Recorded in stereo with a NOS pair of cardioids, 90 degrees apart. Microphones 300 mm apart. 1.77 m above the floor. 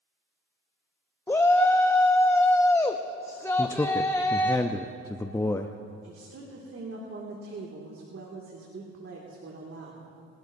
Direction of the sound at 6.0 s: 45° right.